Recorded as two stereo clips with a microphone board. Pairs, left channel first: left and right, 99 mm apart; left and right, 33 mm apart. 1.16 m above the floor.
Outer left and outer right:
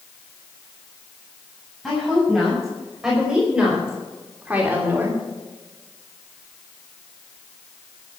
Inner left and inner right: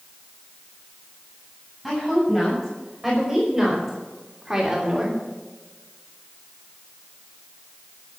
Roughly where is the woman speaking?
Centre.